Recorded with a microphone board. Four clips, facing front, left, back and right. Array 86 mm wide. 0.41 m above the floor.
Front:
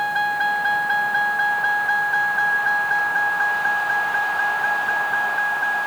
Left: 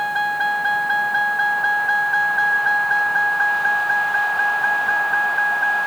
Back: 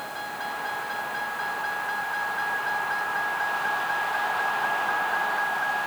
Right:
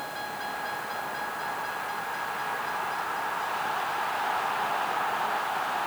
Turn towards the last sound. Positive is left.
turn(degrees=75)